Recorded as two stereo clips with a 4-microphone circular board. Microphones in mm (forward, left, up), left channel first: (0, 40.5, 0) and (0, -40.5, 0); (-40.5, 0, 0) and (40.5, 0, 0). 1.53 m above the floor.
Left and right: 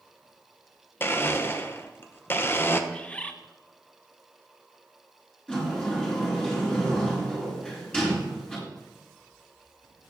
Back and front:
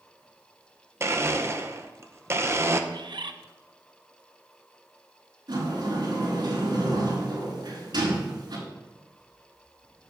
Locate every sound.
1.0 s a blender: 40° left, 0.7 m
2.9 s a bird: 15° left, 0.6 m
5.5 s a sliding door: 10° left, 3.5 m